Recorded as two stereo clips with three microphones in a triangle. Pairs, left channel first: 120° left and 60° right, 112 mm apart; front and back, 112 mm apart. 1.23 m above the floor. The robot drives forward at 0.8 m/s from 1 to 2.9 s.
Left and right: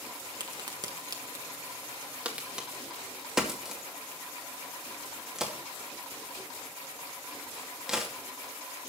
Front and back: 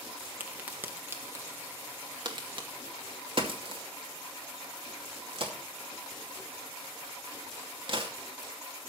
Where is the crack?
105° right, 1.4 m; by 8.1 s 145° right, 2.5 m.